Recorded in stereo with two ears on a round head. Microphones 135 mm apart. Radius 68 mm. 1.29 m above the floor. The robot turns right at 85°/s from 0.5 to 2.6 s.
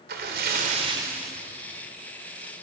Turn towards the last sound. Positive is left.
turn(degrees=110)